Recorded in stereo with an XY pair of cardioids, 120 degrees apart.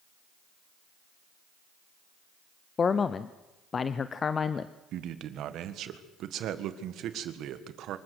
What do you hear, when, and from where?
2.8 s a man speaking: 30° left, 0.6 m
4.9 s a man speaking: 65° right, 1.6 m